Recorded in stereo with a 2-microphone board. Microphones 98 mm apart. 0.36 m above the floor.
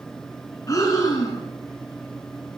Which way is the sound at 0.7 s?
35° left (ahead or behind).